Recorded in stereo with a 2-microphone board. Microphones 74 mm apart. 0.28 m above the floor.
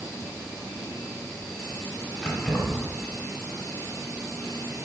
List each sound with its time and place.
2.2 s keys jangling: 20° left (ahead or behind), 1.4 m